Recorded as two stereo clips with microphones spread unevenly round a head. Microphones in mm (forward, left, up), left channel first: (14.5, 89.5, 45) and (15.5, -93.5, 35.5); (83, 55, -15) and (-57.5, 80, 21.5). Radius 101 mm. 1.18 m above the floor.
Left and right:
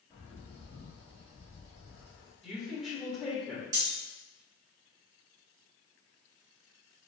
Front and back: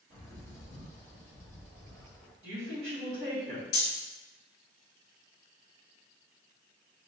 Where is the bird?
165° right, 1.8 m.